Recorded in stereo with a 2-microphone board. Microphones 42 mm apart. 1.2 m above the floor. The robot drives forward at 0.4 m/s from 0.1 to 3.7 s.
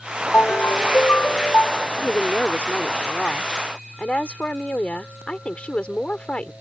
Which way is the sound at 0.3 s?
50° left (ahead or behind).